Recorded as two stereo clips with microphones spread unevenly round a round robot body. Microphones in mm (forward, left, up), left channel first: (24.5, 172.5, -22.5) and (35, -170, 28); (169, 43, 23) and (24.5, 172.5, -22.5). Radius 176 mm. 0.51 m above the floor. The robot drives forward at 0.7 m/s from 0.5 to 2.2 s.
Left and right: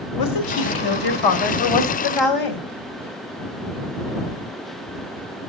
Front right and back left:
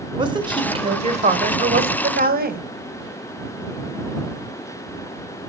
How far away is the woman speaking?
About 2.5 m.